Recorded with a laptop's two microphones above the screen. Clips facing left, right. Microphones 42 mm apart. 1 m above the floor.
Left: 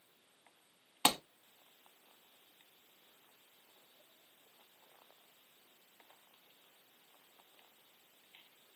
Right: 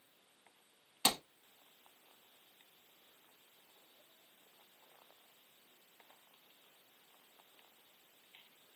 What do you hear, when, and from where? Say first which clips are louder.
1.1 s a clap: left 3 dB; 40° left (ahead or behind), 1.5 m